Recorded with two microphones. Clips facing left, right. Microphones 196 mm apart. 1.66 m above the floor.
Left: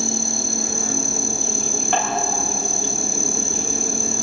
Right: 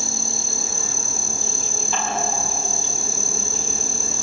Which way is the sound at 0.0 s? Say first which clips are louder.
Left 7 dB; 65° left (ahead or behind).